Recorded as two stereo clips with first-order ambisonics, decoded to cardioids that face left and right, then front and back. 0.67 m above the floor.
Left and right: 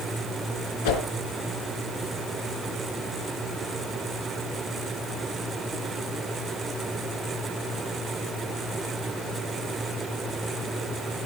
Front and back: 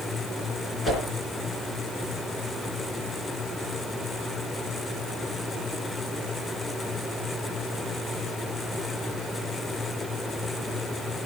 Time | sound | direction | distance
0.8 | a whoosh | 80° left | 3.5 m